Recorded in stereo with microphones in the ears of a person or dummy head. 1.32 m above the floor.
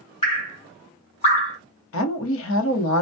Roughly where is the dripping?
Left.